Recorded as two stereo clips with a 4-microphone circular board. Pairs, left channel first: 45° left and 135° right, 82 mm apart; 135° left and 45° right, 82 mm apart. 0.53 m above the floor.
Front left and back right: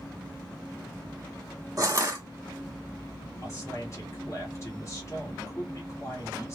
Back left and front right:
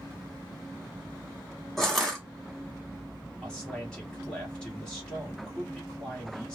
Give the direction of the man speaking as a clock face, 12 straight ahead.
10 o'clock.